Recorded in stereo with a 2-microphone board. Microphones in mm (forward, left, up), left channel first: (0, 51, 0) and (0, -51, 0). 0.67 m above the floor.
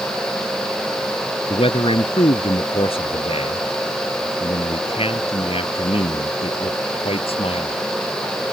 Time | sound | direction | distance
1.5 | a man speaking | 65° left (ahead or behind) | ?